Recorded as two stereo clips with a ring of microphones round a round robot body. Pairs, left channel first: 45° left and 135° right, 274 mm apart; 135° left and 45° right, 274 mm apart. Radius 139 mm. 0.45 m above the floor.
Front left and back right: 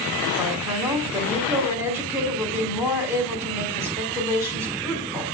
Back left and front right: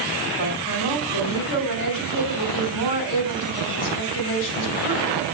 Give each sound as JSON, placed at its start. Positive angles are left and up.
{"t": 0.4, "sound": "a woman speaking", "azimuth_deg": 145, "distance_m": 2.0}